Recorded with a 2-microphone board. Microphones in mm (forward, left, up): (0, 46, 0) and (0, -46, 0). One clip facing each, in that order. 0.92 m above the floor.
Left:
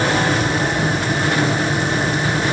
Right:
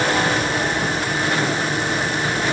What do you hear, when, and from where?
Only background noise.